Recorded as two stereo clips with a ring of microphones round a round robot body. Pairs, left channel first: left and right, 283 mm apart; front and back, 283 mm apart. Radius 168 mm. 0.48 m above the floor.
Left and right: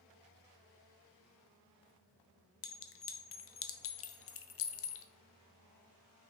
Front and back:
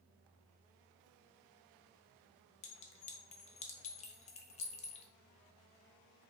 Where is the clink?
60° left, 0.5 m.